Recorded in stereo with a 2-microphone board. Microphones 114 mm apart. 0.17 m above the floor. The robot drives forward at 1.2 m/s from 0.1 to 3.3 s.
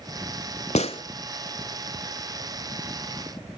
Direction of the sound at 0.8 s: 75° left (ahead or behind).